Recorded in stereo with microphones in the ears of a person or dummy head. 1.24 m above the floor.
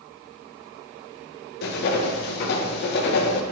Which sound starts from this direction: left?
Writing, at 1.6 s.